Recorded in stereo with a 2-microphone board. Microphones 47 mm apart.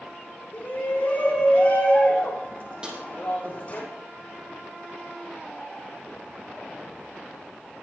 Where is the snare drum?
20° right (ahead or behind), 6.5 m.